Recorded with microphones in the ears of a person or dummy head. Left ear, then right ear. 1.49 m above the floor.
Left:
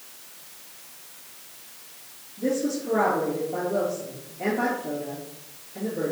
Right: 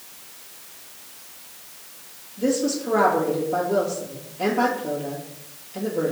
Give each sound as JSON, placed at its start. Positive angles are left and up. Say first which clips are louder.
{"t": 2.4, "sound": "a woman speaking", "louder": "right 3 dB", "side_deg": -65, "distance_m": 3.0}